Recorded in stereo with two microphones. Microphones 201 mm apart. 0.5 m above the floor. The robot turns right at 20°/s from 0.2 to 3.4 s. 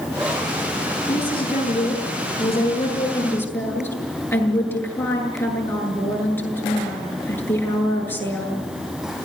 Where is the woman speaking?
125° left, 8 m; by 8.7 s 170° left, 8 m.